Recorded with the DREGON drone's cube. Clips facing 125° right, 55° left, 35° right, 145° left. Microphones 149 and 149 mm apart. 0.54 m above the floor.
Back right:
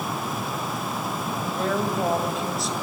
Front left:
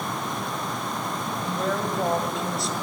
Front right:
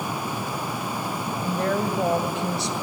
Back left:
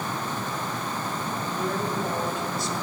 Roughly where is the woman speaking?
Ahead right.